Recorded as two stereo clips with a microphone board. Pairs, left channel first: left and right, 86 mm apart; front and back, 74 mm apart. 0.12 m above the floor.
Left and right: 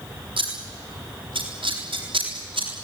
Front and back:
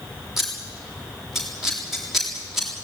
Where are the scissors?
95° right, 7 m.